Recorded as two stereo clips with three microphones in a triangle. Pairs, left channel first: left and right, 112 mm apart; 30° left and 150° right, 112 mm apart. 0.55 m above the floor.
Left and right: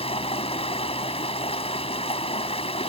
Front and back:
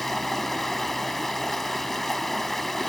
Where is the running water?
115° left.